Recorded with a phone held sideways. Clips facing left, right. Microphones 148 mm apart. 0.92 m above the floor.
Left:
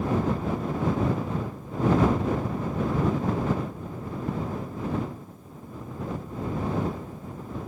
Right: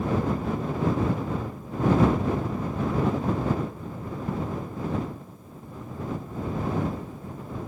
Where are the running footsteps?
I don't hear running footsteps.